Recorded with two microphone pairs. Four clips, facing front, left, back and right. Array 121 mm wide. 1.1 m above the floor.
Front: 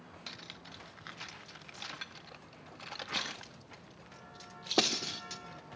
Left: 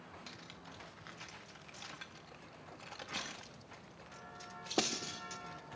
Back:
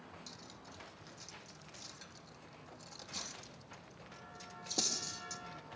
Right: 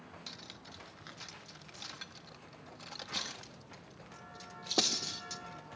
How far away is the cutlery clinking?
About 0.6 m.